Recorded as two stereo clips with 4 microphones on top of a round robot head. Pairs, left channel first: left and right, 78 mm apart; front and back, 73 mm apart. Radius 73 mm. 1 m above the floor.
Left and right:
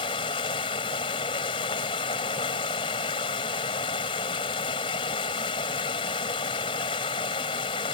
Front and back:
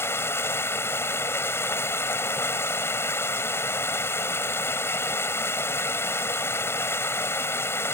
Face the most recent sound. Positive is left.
turn(degrees=55)